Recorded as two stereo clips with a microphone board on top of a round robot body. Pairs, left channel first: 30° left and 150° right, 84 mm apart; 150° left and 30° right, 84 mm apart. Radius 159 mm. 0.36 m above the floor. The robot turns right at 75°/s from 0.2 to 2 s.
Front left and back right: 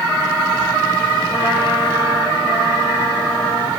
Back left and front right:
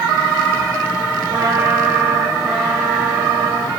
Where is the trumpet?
5° left, 7.5 m; by 3.7 s 60° left, 7.5 m.